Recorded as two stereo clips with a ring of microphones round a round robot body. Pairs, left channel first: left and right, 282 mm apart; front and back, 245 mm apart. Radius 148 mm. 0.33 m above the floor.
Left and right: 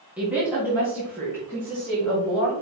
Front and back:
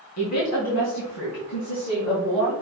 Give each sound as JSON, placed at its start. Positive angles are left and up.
{"t": 0.2, "sound": "a woman speaking", "azimuth_deg": -5, "distance_m": 2.5}